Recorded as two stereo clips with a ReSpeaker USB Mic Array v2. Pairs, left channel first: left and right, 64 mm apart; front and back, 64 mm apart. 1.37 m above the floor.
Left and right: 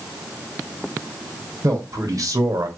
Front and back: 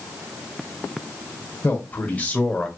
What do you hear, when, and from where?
1.6 s a man speaking: 60° right, 1.4 m; by 2.7 s 75° right, 0.9 m